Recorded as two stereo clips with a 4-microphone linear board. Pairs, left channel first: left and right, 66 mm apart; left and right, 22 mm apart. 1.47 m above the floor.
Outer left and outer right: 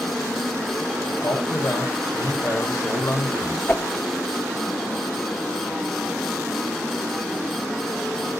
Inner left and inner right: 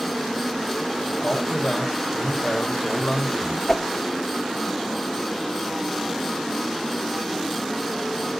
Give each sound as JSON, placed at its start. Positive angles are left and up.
{"t": 1.2, "sound": "a man speaking", "side_deg": 55, "distance_m": 6.5}
{"t": 3.7, "sound": "a whoosh", "side_deg": 30, "distance_m": 0.7}